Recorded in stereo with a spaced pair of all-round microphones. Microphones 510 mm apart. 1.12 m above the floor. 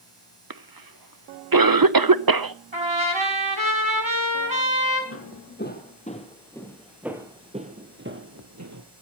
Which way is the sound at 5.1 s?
25° left (ahead or behind).